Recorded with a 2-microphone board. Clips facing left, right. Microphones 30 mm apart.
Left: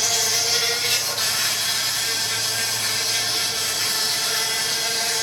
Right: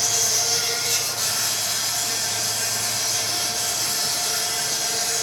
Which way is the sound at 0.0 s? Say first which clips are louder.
Left 2 dB; 40° left (ahead or behind).